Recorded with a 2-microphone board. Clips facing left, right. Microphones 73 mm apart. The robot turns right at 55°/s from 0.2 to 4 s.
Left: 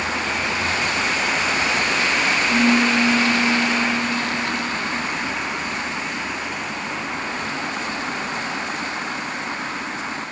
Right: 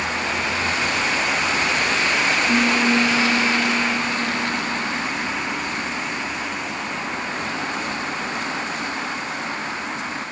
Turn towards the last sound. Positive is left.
turn(degrees=0)